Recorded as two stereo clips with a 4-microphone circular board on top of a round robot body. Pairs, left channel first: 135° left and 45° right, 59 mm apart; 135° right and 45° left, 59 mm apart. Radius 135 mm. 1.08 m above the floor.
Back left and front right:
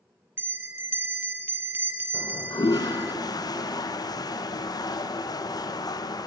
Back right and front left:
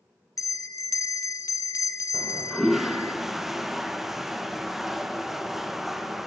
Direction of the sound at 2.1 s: 130° left.